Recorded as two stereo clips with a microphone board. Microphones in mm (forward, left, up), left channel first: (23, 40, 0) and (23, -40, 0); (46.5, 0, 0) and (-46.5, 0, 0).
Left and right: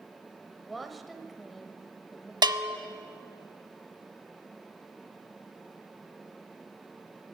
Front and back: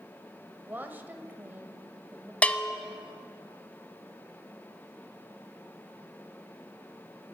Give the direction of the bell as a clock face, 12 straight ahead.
2 o'clock.